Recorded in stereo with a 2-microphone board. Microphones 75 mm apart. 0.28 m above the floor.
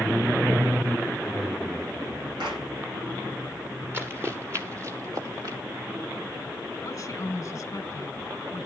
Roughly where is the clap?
Right.